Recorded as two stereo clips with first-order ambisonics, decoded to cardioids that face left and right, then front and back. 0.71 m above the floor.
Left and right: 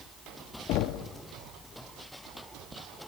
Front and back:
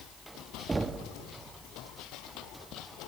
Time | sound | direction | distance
0.7 | knocking | 100° left | 0.6 m